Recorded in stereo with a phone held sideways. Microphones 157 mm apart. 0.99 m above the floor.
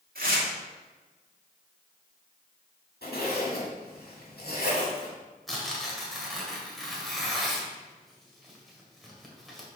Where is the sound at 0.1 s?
70° right (ahead or behind), 1.4 m.